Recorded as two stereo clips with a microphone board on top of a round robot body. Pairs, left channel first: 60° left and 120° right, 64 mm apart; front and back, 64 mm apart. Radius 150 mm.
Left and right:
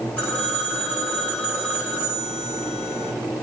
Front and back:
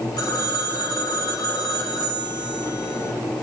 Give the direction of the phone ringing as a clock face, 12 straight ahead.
12 o'clock.